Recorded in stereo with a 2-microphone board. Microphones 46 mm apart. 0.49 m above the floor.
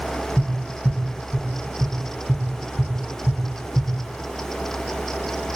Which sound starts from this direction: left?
Tapping, at 0.4 s.